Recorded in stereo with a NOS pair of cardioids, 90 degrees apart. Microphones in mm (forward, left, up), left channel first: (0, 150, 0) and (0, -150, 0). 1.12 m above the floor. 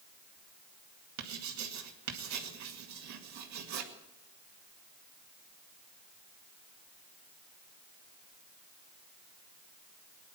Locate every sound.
1.2 s writing: 70° right, 2 m